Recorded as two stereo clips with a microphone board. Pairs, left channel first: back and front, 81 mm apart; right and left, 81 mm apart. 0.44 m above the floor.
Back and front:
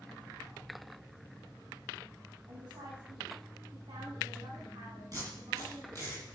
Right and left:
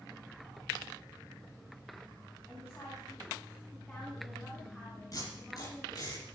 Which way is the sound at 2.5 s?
30° right.